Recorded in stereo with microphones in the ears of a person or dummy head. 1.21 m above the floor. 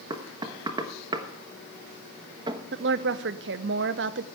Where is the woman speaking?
55° right (ahead or behind), 0.7 m.